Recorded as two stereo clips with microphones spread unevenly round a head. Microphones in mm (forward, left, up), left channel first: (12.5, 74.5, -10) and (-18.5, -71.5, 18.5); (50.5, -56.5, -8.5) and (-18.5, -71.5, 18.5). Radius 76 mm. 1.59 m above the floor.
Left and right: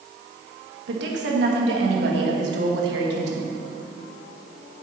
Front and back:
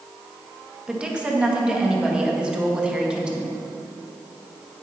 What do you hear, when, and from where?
0.9 s a woman speaking: 95° right, 2 m